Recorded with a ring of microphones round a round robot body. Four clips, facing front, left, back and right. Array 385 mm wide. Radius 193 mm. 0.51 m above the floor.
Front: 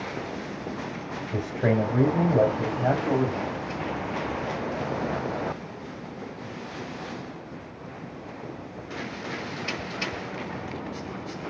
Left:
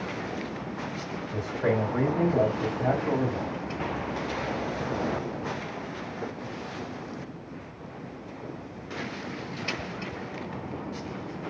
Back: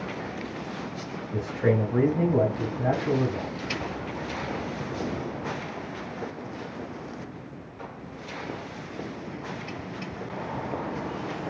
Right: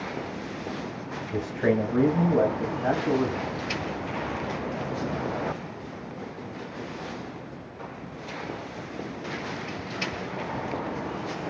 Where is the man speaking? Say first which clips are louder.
Right 2 dB, even; 30° right, 1.9 m; by 3.5 s 5° right, 3 m.